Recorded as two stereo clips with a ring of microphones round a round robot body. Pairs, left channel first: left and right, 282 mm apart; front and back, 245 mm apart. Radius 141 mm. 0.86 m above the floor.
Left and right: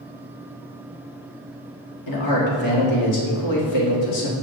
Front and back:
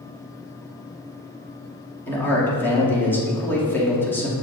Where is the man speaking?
80° left, 2 m.